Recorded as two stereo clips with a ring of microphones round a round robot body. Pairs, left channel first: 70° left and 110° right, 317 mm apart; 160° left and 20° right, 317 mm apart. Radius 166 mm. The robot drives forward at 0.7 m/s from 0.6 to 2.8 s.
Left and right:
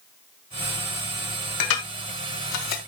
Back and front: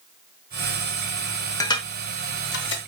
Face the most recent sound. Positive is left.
turn(degrees=105)